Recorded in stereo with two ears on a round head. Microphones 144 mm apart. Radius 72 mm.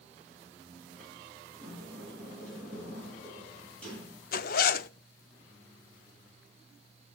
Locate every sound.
1.5 s a sliding door: 10° left (ahead or behind), 8 m
4.3 s a zipper: 60° left (ahead or behind), 0.5 m